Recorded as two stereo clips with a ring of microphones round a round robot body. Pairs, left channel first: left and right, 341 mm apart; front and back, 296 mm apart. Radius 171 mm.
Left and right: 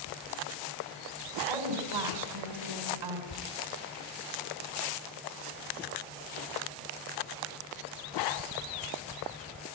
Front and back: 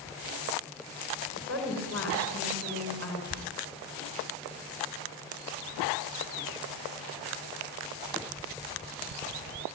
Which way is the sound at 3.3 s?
125° left.